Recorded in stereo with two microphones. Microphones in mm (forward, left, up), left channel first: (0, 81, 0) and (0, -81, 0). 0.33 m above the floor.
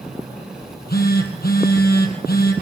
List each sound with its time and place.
0.6 s a phone buzzing: 75° left (ahead or behind), 3 m